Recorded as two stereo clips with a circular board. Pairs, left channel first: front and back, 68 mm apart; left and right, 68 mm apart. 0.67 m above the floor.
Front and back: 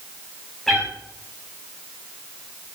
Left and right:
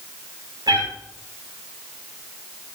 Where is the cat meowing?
85° right, 7 m.